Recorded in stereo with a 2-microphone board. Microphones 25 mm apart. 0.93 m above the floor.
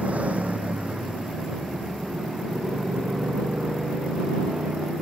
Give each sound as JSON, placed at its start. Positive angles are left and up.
{"t": 0.0, "sound": "a motorcycle", "side_deg": -65}